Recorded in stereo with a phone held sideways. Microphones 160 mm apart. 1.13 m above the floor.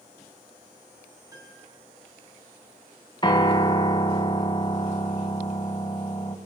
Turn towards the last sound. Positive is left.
turn(degrees=30)  # may be behind; listen again after turning